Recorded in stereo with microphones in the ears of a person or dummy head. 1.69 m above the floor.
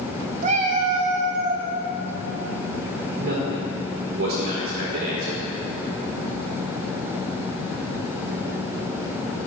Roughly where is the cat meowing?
Right.